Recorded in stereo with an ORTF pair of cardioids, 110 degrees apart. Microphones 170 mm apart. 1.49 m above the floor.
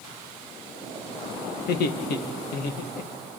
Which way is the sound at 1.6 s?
70° left.